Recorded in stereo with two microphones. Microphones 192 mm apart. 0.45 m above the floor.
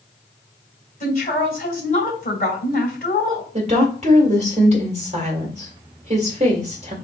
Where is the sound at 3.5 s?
35° right (ahead or behind), 1.6 m.